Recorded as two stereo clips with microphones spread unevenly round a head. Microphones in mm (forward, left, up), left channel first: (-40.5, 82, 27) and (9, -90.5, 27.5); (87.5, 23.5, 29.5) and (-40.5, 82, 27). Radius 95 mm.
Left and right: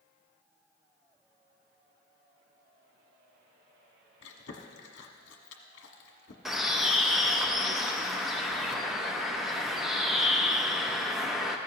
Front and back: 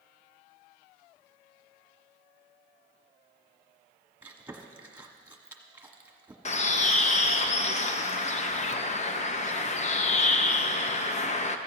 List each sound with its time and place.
4.2 s chewing: 80° left, 1.3 m
6.5 s a bird: 15° left, 0.7 m